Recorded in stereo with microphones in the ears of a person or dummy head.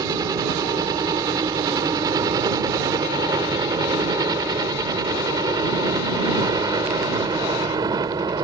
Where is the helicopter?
20° right (ahead or behind).